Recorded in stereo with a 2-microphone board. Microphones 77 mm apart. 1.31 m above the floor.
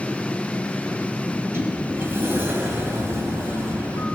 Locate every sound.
1.3 s a sliding door: 30° right (ahead or behind), 2.5 m